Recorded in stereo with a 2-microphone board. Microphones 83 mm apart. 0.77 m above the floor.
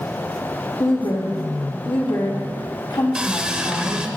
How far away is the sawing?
About 0.8 m.